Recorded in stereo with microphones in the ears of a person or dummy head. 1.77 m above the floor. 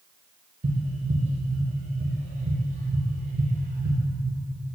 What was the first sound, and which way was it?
Tapping, 40° right (ahead or behind).